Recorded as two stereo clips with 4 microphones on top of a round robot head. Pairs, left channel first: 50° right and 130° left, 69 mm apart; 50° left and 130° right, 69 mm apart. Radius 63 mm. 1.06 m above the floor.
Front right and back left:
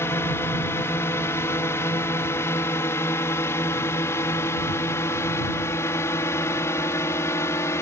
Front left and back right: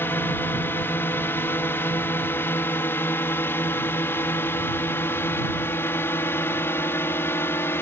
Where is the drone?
Straight ahead; by 7.8 s 5° right.